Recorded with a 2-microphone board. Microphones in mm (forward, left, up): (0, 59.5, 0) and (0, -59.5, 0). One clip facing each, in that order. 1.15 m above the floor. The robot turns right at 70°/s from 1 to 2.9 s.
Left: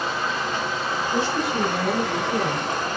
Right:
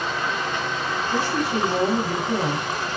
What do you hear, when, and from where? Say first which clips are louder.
0.0 s running water: even; 5° left, 3.5 m; by 3.0 s 135° left, 3.5 m
1.1 s a woman speaking: right 1 dB; 150° right, 2.5 m; by 3.0 s 25° right, 2.5 m